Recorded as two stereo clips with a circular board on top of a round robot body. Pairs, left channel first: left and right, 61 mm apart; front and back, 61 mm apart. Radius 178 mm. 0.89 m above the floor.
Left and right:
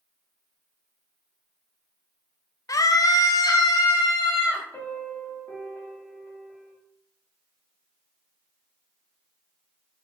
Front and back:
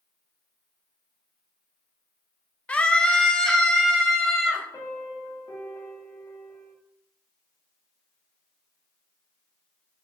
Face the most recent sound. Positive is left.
turn(degrees=35)